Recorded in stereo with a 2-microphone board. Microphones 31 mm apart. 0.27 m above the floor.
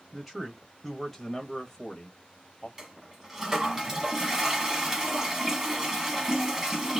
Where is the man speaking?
10° right (ahead or behind), 1.1 m; by 2.7 s 25° left (ahead or behind), 1.1 m.